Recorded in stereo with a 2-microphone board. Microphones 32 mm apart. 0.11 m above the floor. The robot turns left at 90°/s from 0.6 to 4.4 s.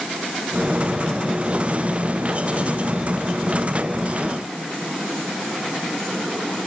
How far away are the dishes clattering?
I don't hear dishes clattering.